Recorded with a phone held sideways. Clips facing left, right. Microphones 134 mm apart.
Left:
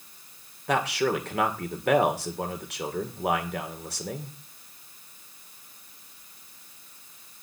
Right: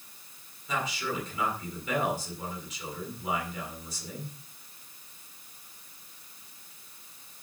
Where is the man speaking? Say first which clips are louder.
Left 8 dB; 70° left (ahead or behind), 2.5 m.